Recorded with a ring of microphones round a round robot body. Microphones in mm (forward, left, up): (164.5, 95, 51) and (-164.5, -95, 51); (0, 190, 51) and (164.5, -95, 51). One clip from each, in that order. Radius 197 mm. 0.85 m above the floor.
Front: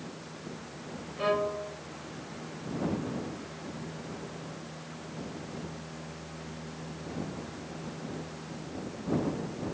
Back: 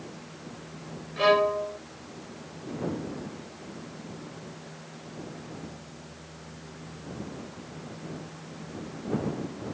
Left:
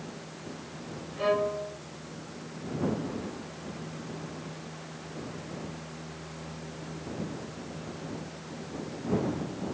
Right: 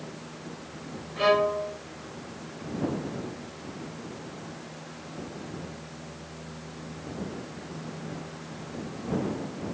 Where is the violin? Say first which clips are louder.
Back 7 dB, right 5 dB; 115° right.